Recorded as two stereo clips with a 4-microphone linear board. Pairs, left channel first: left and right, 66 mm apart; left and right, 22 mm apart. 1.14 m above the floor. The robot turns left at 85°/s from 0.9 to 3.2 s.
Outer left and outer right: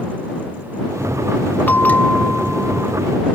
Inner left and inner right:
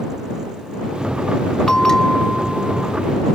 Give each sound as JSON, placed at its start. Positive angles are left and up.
{"t": 1.7, "sound": "a bell", "side_deg": 30}